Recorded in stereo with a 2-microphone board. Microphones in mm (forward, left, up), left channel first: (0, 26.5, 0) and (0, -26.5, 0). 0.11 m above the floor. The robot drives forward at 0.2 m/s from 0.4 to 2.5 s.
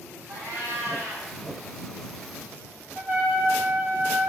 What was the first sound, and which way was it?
A cat meowing, 50° right (ahead or behind).